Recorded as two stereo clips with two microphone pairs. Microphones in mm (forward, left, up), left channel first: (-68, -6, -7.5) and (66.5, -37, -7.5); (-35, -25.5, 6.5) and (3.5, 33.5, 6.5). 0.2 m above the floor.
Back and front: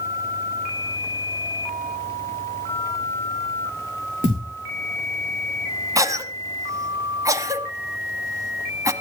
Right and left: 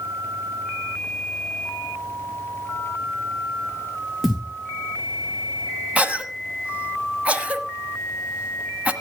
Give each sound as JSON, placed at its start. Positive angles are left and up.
{"t": 4.2, "sound": "a thud", "azimuth_deg": -30, "distance_m": 4.0}
{"t": 6.0, "sound": "a cough", "azimuth_deg": 10, "distance_m": 1.1}